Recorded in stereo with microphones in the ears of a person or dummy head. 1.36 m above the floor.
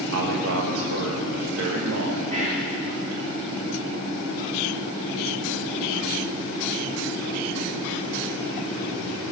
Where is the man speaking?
75° right (ahead or behind), 1.2 m.